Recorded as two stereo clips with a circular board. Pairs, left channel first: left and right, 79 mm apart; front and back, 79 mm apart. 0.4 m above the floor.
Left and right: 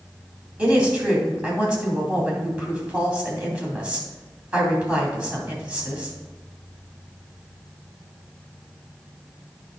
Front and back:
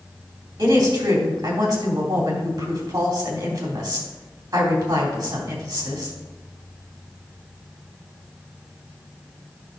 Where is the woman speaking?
160° right, 3 m.